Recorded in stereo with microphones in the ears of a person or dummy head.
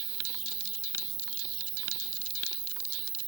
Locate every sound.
0.0 s an insect: 35° right (ahead or behind), 1.5 m